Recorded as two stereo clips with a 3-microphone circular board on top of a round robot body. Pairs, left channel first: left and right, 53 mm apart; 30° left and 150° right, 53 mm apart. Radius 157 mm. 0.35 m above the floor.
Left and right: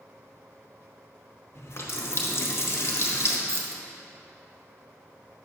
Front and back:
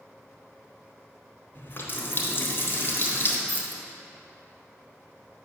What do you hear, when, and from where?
1.6 s a running tap: 70° left, 1.1 m
3.5 s keys jangling: 100° right, 1.0 m